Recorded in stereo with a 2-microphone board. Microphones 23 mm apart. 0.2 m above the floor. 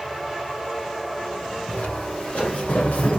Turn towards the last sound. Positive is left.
turn(degrees=75)  # may be behind; listen again after turning